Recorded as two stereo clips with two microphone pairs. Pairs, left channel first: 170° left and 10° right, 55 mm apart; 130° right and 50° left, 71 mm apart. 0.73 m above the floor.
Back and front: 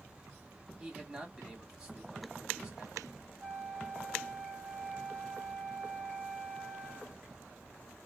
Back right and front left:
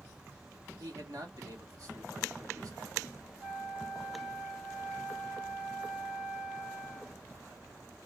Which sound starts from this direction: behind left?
A flute, at 3.4 s.